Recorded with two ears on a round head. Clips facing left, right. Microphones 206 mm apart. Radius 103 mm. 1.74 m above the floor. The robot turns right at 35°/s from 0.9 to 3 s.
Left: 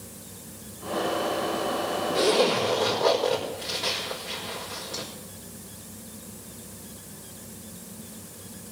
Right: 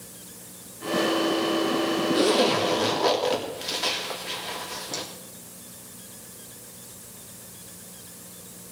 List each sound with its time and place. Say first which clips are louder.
2.1 s a zipper: left 1 dB; 75° right (ahead or behind), 3.5 m; by 5.0 s 65° right (ahead or behind), 3.5 m